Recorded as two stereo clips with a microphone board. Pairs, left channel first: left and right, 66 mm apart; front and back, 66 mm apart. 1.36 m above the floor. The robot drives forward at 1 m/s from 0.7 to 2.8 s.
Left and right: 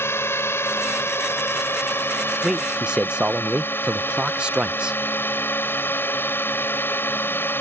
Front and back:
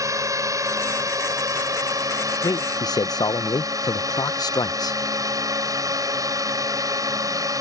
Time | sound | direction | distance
0.0 | a drone | 145° left | ?
2.4 | a man speaking | 10° right | ?